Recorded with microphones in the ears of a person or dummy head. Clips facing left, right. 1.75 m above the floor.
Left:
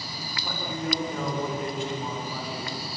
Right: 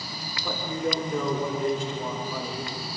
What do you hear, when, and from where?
0.4 s a man speaking: 90° right, 6.5 m